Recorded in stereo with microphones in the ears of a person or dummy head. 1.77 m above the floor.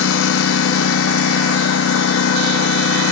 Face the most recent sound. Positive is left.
turn(degrees=80)